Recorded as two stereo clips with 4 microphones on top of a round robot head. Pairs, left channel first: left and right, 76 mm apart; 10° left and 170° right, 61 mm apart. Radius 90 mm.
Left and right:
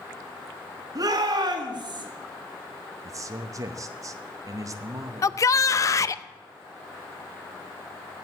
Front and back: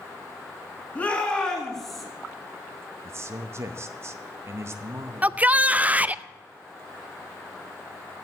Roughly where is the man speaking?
Behind right.